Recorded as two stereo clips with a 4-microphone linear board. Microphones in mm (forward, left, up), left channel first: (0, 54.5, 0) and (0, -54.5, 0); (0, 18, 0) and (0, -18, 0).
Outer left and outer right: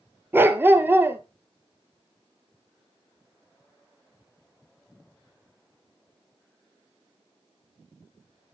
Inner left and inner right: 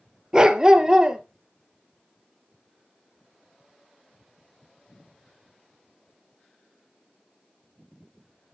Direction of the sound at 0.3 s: 20° right (ahead or behind).